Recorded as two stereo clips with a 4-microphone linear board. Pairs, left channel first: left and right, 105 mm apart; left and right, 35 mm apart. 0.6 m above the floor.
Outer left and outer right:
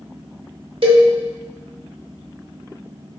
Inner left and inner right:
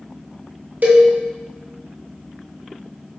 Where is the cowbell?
55° right (ahead or behind), 0.9 m.